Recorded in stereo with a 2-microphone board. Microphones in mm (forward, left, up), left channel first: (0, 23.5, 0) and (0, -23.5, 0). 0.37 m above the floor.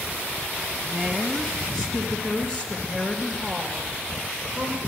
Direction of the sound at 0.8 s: 5° left (ahead or behind).